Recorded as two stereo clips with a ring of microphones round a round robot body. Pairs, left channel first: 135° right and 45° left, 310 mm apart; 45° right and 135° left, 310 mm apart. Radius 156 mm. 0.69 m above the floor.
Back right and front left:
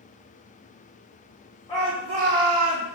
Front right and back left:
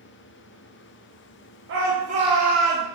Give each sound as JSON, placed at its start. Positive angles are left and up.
{"t": 1.7, "sound": "a shout", "azimuth_deg": 160, "distance_m": 0.7}